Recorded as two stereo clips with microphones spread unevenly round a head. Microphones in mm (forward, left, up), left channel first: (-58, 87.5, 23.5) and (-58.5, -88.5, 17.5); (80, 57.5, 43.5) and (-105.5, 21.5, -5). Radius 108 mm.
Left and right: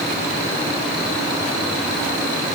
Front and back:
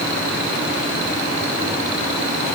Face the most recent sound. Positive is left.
No sound to turn to.